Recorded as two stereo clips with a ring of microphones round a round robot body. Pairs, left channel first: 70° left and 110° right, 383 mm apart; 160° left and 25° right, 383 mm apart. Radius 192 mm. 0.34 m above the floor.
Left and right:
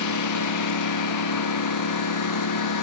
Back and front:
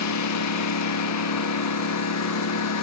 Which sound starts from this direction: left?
A lawn mower, at 0.0 s.